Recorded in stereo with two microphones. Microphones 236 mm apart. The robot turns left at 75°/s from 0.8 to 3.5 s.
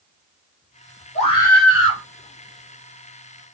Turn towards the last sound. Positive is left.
turn(degrees=-130)